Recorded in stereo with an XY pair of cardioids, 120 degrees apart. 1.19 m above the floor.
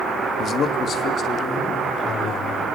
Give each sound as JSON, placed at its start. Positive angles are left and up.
{"t": 0.4, "sound": "a man speaking", "azimuth_deg": 50, "distance_m": 1.7}